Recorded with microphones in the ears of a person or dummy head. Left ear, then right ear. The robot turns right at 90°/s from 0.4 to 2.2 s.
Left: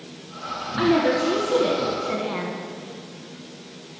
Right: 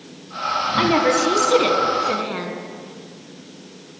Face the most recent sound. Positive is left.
turn(degrees=-10)